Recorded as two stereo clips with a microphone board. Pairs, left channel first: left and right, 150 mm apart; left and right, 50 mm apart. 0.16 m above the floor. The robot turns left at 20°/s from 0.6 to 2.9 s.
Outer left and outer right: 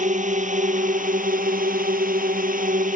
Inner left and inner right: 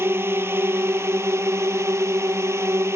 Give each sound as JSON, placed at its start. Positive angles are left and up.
{"t": 0.0, "sound": "a drone", "azimuth_deg": -65}